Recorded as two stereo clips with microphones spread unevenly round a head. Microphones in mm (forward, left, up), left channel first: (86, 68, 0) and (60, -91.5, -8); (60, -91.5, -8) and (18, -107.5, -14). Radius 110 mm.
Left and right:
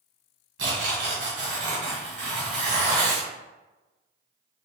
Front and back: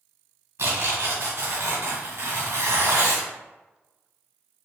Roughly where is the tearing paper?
Behind right.